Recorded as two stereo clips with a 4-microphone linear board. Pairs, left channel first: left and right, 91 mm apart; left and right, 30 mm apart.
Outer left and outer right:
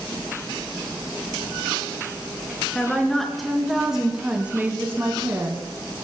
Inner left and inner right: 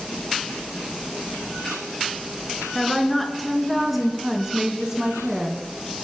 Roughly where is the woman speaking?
Centre.